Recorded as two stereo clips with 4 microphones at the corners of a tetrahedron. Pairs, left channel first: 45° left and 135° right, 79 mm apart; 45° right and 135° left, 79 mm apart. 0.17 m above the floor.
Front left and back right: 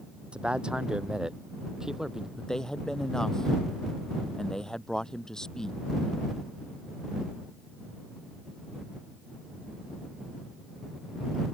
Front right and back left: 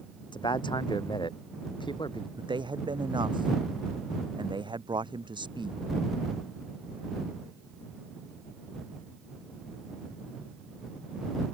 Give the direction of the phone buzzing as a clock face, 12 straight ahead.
No phone buzzing in this recording.